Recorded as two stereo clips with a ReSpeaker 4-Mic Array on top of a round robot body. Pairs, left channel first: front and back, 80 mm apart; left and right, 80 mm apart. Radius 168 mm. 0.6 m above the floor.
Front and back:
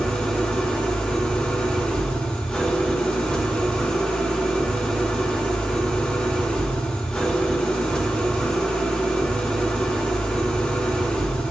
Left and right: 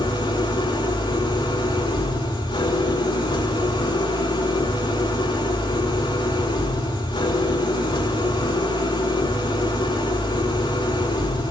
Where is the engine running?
80° left, 7.5 m.